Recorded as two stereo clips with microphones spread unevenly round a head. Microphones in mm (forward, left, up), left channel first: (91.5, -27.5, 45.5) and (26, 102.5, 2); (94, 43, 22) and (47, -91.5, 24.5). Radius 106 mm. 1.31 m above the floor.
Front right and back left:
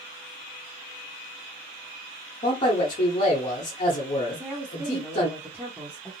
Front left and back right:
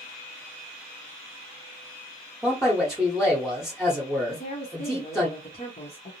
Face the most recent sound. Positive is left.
turn(degrees=35)